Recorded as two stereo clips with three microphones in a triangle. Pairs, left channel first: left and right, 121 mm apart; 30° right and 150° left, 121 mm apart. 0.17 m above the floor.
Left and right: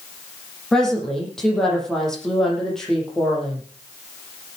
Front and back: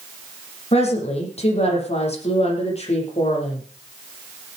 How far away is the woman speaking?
About 8 m.